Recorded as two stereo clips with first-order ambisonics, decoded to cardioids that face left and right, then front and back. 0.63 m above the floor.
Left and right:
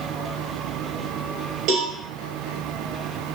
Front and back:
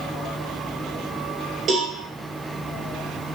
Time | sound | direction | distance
1.7 | a cowbell | 125° right | 3 m